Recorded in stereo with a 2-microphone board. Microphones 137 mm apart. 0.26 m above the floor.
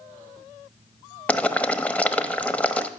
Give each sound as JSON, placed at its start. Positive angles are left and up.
{"t": 1.3, "sound": "boiling", "side_deg": 10, "distance_m": 1.0}